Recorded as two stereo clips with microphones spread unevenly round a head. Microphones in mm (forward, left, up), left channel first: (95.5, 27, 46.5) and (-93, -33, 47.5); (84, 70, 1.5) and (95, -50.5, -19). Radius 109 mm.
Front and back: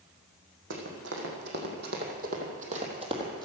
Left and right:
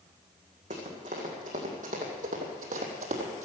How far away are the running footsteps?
About 4 m.